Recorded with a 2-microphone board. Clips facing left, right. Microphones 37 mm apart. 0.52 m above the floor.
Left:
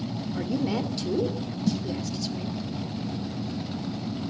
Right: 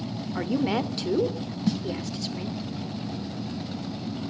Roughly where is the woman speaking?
Right.